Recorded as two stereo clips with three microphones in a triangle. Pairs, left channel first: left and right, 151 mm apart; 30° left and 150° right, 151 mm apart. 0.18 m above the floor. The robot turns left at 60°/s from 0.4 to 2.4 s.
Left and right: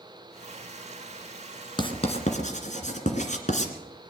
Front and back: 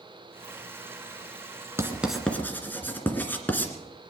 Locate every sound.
1.8 s writing: 140° left, 2 m; by 3.7 s 105° left, 2 m